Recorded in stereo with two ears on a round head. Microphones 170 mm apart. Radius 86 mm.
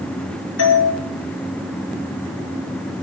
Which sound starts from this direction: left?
A doorbell, at 0.6 s.